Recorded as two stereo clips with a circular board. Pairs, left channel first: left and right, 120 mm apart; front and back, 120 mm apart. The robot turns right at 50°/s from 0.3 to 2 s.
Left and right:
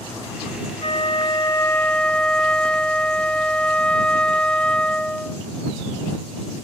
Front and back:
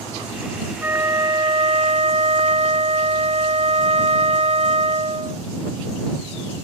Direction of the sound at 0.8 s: 110° left.